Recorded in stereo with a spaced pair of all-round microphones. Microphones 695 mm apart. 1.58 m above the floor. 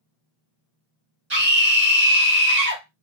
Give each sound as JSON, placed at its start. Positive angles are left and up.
{"t": 1.3, "sound": "a scream", "side_deg": -65, "distance_m": 1.5}